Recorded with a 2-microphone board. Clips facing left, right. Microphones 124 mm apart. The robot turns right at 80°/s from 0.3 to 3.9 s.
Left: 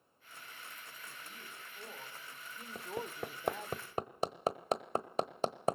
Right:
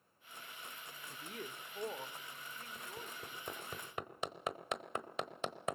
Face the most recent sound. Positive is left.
turn(degrees=35)  # may be behind; listen again after turning